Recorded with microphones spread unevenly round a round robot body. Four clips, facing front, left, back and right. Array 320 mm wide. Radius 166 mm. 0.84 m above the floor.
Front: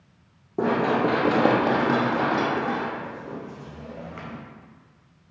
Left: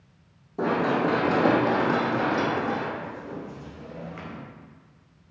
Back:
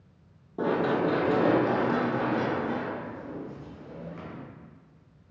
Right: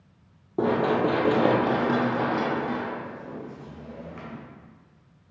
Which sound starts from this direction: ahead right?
Running footsteps, at 0.6 s.